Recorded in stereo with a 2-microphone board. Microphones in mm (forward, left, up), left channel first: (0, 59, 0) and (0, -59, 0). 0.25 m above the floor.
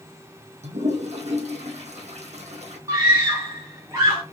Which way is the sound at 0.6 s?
75° right (ahead or behind).